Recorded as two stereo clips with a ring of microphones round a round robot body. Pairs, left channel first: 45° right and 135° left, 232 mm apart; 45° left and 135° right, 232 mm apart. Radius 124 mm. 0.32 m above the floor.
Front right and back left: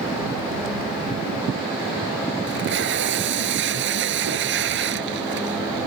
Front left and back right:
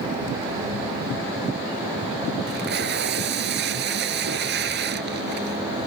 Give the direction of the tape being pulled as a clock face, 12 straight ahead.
6 o'clock.